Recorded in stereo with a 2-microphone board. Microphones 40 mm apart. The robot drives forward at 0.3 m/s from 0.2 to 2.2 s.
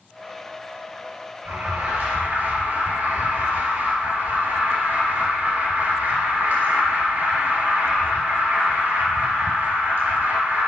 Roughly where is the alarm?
Right.